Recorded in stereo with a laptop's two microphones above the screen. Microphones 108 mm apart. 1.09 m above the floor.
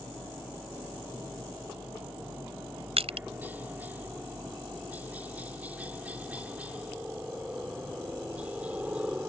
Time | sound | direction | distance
0.0 | a helicopter | 20° right (ahead or behind) | ?
3.0 | crushing | 75° right (ahead or behind) | ?